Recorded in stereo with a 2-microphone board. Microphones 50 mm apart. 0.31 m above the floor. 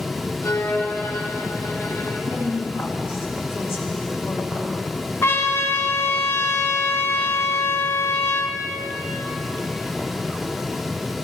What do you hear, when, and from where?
0.4 s a violin: 70° left (ahead or behind), 1.8 m
2.3 s a woman speaking: 70° left (ahead or behind), 3.5 m
5.2 s a trumpet: 60° left (ahead or behind), 1.1 m